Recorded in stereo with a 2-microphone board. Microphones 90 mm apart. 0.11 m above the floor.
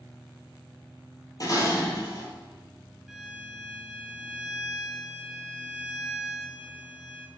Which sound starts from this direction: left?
Dishes clattering, at 1.4 s.